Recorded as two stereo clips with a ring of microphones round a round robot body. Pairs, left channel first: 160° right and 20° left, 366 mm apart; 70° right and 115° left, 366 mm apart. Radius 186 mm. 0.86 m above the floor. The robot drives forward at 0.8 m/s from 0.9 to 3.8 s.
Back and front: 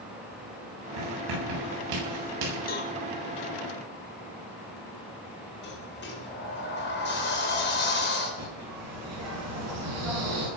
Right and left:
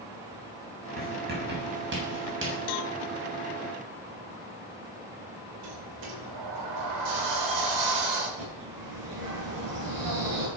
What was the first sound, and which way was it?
Writing, 45° left.